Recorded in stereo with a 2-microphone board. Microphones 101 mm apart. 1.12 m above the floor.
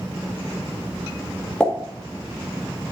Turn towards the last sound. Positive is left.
turn(degrees=10)  # may be behind; listen again after turning